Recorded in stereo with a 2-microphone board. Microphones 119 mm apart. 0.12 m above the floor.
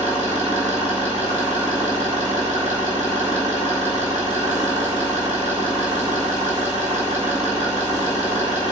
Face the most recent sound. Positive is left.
turn(degrees=-75)  # may be behind; listen again after turning